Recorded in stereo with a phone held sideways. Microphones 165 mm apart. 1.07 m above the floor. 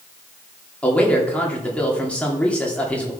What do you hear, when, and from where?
0.8 s a man speaking: 5° left (ahead or behind), 2.5 m